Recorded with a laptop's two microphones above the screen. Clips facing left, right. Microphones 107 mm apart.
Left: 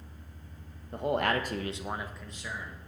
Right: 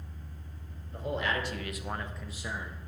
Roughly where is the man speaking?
Left.